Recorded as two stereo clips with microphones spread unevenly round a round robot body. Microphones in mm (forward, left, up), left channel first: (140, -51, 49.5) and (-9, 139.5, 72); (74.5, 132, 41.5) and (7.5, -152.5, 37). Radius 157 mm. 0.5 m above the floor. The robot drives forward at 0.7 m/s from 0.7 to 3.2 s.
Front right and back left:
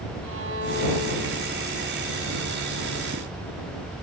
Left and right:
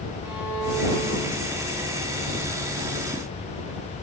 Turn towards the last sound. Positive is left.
turn(degrees=175)